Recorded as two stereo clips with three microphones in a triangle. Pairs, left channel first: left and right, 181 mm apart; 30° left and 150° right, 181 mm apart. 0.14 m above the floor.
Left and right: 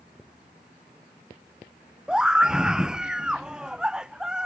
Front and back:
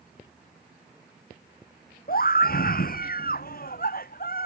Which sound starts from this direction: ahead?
A scream, at 2.1 s.